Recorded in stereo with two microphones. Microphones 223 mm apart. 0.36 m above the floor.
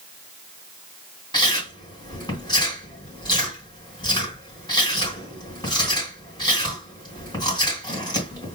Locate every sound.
1.3 s chewing: 20° left (ahead or behind), 3 m